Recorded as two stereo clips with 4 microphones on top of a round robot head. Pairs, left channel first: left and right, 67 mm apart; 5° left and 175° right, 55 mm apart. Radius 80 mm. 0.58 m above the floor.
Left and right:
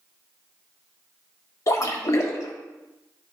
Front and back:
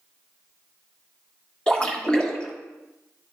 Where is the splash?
75° left, 1.8 m.